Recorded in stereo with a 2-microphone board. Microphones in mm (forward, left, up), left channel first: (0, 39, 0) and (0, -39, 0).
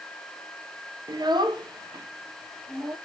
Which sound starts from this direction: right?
A child speaking, at 1.1 s.